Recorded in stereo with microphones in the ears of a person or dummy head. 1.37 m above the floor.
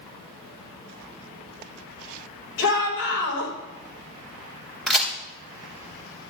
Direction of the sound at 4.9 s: 5° left (ahead or behind).